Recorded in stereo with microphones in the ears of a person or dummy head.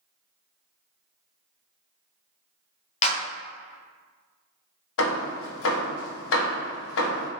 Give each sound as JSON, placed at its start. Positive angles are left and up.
{"t": 3.0, "sound": "a clap", "side_deg": 35, "distance_m": 0.8}
{"t": 5.0, "sound": "hammering", "side_deg": 75, "distance_m": 0.8}